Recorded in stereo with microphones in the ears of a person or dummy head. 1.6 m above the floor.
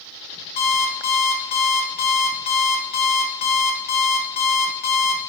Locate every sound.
0.6 s an alarm clock: 50° left (ahead or behind), 1.4 m